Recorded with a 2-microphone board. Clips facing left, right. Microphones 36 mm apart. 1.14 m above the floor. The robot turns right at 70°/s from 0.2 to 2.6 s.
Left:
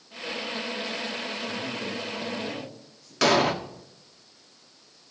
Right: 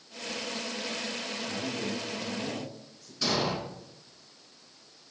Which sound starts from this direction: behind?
A man speaking, at 1.5 s.